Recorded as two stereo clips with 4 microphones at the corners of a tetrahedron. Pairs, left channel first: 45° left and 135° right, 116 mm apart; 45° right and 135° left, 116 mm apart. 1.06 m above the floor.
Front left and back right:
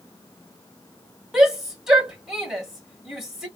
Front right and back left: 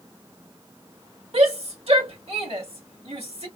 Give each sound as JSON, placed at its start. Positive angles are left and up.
{"t": 1.3, "sound": "a shout", "azimuth_deg": 140, "distance_m": 1.7}